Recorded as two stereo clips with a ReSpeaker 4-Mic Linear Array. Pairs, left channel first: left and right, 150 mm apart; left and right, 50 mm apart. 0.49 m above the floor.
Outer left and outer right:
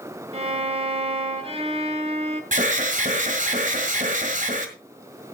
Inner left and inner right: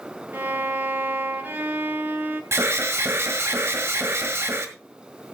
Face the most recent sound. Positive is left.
turn(degrees=-55)  # may be behind; listen again after turning